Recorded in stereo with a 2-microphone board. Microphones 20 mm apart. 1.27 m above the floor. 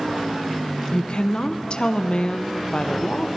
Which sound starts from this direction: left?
A woman speaking, at 0.9 s.